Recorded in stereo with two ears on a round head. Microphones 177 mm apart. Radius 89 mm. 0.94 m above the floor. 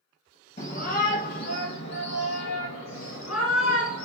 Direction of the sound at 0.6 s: 40° left (ahead or behind).